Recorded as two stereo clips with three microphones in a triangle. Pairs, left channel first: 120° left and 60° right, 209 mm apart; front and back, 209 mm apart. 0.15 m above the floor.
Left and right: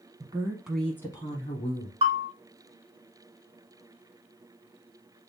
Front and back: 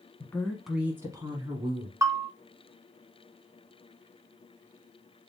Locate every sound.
0.2 s a woman speaking: 60° right, 1.0 m; by 1.9 s 135° left, 1.3 m
2.0 s a bell: 110° right, 0.9 m